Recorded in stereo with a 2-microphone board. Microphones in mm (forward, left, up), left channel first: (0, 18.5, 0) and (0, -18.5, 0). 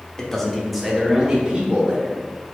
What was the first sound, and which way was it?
A man speaking, 15° left (ahead or behind).